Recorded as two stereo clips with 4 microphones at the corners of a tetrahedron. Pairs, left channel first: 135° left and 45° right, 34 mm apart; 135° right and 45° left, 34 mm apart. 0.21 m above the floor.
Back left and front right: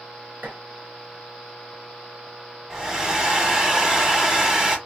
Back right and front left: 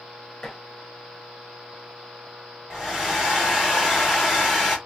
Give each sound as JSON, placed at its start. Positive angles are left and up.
{"t": 0.4, "sound": "dishes clattering", "azimuth_deg": -65, "distance_m": 1.9}
{"t": 2.7, "sound": "a hair dryer", "azimuth_deg": -20, "distance_m": 1.6}